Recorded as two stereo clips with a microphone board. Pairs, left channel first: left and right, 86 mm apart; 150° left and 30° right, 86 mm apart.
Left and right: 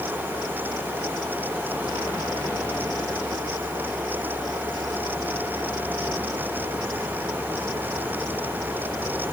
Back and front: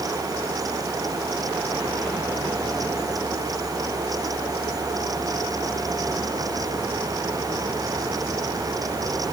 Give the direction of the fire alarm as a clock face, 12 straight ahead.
No fire alarm in this recording.